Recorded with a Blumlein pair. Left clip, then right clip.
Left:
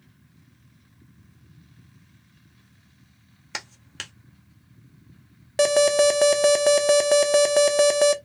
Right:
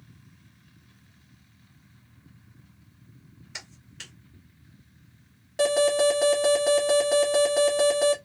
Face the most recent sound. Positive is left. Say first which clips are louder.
# left 4 dB
turn(degrees=65)